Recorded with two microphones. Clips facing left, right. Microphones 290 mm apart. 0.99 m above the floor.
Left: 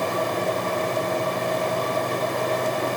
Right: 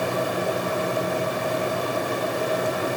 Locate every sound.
Only background noise.